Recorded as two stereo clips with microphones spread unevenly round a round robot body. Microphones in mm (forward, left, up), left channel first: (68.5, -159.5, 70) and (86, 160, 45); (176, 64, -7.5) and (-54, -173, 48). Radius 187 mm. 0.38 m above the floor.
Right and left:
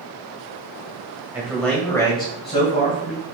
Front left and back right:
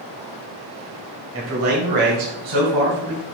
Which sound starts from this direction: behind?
A man speaking, at 1.3 s.